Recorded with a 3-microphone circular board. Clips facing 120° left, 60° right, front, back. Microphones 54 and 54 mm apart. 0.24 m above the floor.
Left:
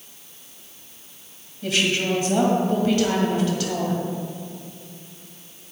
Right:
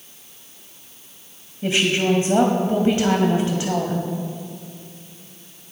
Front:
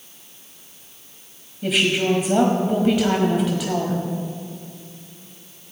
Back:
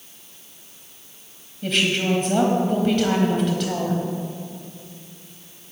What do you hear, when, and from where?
1.6 s a woman speaking: 80° right, 1.3 m